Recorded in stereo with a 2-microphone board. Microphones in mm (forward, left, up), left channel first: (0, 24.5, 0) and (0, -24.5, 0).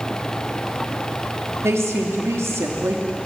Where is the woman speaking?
75° right (ahead or behind), 2.5 m.